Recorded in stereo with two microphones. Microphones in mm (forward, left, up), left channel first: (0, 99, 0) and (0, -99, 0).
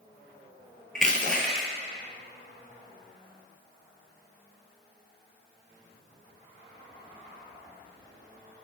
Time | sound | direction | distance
0.9 | crushing | 5° left (ahead or behind) | 0.5 m